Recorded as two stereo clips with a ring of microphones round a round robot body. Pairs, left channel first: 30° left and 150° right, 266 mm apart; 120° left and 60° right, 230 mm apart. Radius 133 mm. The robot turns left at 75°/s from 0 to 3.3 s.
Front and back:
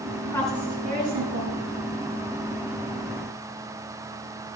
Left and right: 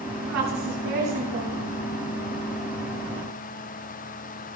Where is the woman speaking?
40° right, 6.5 m; by 1.6 s 145° right, 6.5 m.